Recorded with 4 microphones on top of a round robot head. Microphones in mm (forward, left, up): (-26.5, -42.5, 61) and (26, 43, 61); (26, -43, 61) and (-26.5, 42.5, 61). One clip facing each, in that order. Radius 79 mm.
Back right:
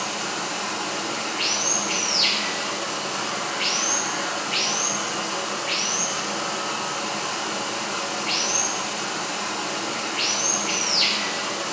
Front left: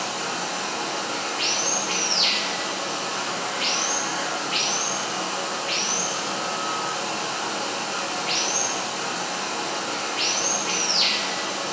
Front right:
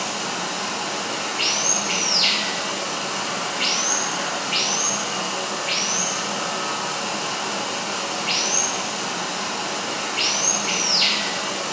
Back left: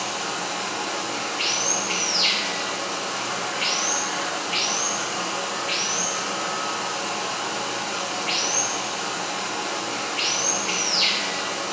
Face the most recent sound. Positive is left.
turn(degrees=-10)